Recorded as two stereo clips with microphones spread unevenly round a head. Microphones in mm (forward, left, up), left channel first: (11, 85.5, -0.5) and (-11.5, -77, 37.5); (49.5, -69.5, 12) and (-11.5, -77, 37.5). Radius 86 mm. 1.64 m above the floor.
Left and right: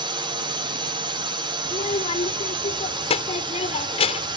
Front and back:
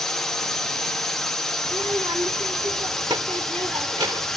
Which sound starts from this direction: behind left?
A child speaking, at 1.6 s.